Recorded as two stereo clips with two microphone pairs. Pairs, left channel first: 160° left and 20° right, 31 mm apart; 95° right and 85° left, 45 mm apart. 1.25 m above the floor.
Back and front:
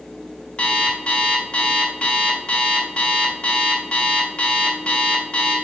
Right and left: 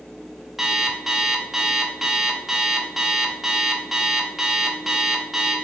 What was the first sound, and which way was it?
An alarm clock, 165° left.